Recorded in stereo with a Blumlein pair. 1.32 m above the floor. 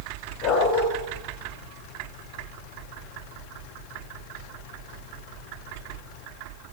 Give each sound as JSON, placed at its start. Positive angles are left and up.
{"t": 0.4, "sound": "a dog barking", "azimuth_deg": 45, "distance_m": 2.5}